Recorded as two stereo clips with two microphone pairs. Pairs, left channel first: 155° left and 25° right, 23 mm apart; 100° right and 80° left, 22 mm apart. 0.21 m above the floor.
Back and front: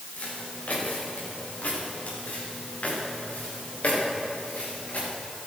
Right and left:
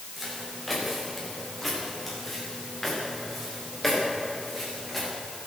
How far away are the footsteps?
About 9.5 m.